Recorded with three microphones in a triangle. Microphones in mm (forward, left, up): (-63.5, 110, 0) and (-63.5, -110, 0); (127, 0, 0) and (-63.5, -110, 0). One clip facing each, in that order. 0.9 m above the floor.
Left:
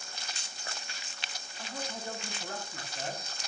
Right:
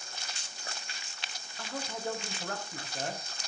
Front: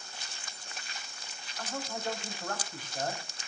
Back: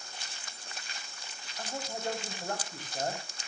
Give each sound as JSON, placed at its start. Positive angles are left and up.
{"t": 1.6, "sound": "a man speaking", "azimuth_deg": -80, "distance_m": 6.5}